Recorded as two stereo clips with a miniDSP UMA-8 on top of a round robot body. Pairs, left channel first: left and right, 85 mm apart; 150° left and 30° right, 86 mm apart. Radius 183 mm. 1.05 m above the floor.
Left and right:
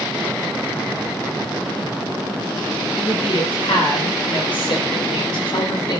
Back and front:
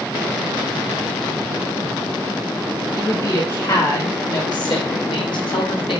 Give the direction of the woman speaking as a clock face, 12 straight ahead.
8 o'clock.